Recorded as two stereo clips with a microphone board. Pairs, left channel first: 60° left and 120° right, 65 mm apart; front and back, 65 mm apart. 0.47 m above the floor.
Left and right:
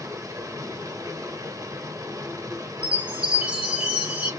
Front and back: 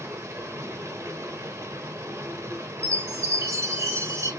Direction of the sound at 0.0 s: 145° right.